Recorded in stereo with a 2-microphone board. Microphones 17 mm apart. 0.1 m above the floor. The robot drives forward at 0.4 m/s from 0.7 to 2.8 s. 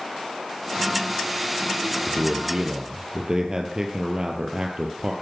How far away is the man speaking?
About 2.5 m.